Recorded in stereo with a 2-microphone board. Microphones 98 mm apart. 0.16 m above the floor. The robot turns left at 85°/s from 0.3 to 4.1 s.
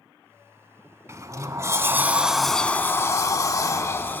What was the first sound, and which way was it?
A sliding door, 65° right.